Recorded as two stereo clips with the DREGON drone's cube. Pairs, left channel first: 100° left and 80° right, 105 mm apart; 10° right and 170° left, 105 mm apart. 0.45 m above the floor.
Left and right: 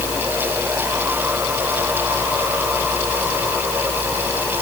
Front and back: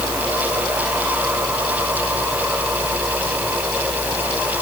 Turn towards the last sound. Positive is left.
No sound to turn to.